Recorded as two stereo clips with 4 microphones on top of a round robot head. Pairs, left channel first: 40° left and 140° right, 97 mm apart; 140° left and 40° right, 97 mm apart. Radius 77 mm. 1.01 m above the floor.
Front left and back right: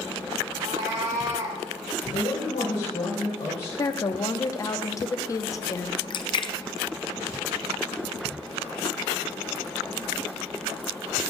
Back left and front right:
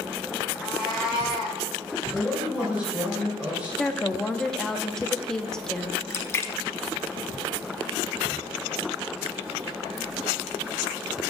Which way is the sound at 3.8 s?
60° left.